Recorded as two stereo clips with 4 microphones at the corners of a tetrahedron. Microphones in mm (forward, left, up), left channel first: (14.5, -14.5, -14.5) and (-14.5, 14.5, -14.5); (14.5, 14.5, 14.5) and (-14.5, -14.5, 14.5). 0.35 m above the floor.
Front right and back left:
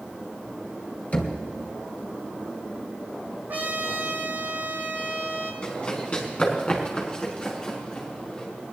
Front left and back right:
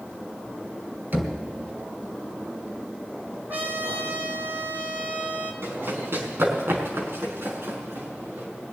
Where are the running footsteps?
105° right, 4.5 m; by 8.5 s 115° right, 7 m.